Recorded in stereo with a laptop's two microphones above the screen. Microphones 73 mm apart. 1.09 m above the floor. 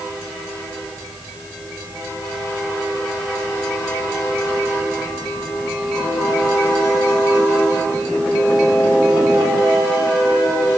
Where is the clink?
I don't hear a clink.